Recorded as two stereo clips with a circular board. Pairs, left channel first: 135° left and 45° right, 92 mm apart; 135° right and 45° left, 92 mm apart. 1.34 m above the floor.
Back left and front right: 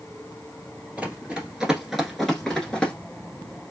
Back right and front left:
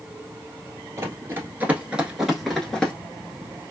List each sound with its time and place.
1.0 s running footsteps: 20° left, 1.5 m; by 2.9 s 175° left, 1.3 m